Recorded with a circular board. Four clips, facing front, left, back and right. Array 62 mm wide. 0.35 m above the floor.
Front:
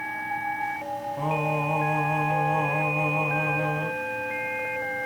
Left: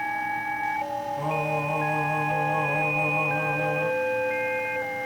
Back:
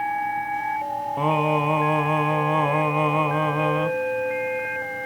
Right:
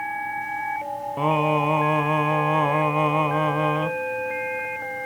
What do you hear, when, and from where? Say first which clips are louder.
1.2 s singing: right 8 dB, back 6 dB; 130° right, 0.5 m